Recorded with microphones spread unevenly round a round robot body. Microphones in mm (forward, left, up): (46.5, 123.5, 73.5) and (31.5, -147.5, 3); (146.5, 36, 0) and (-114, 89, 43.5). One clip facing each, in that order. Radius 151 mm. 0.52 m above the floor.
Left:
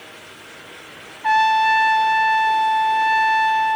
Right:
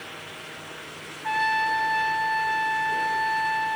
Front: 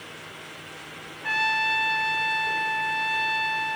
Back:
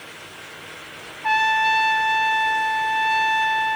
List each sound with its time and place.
1.2 s a trumpet: 75° left, 1.1 m